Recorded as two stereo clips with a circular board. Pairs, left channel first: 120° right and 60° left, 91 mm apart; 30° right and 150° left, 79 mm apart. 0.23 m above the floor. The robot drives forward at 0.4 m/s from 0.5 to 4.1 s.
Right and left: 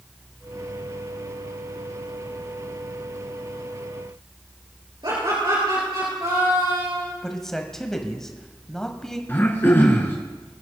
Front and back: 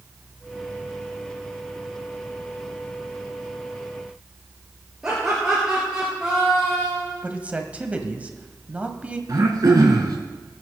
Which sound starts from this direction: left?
Laughter, at 5.0 s.